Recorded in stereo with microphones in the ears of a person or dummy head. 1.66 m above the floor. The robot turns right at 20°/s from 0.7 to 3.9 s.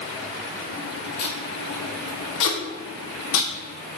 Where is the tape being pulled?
45° left (ahead or behind), 1.9 m; by 3.5 s 70° left (ahead or behind), 1.9 m.